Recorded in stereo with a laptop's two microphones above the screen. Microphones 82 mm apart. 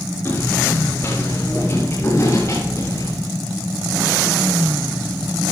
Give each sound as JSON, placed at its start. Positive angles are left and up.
{"t": 0.2, "sound": "footsteps", "side_deg": 30, "distance_m": 8.0}